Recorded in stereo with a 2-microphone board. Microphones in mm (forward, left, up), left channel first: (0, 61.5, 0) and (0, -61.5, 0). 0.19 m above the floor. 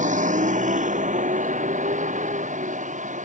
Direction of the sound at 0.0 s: 85° right.